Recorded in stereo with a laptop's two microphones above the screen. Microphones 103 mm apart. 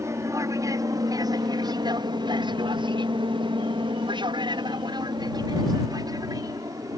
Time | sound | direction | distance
0.0 | an aircraft | 25° right (ahead or behind) | ?